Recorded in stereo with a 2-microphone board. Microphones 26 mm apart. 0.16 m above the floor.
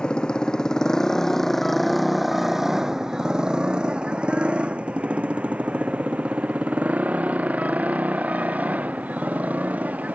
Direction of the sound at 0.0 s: 35° left (ahead or behind).